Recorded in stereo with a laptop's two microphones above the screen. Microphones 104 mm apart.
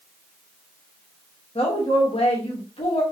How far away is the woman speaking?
About 1.1 m.